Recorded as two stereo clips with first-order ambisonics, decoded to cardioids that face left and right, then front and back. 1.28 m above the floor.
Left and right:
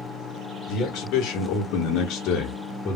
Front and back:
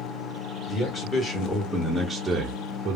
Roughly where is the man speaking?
Ahead left.